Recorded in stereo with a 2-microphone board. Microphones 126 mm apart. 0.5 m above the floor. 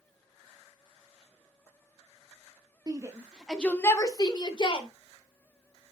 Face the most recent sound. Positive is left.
turn(degrees=40)  # may be behind; listen again after turning